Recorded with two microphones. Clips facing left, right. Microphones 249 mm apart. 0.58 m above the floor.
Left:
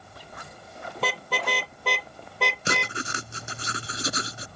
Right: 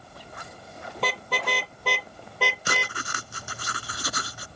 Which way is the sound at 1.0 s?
Centre (ahead or behind).